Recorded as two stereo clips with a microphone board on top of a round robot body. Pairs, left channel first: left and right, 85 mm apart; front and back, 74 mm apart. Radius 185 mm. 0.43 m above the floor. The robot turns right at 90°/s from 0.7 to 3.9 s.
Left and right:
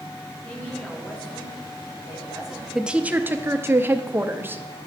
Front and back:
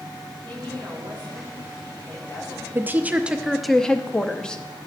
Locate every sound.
0.4 s a woman speaking: 155° left, 3 m; by 2.6 s 25° right, 3 m
2.8 s a woman speaking: 170° right, 0.7 m; by 4.6 s 65° right, 0.7 m